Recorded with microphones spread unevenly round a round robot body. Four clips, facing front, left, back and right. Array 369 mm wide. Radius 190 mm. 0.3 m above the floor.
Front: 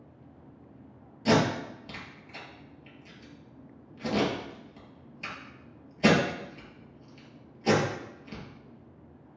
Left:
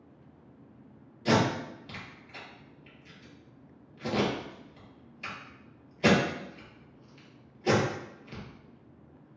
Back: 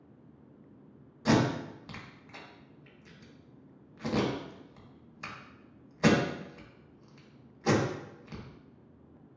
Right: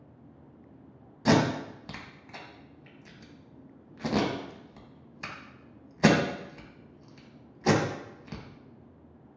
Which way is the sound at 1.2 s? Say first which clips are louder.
Right 2 dB, front 2 dB; 70° right.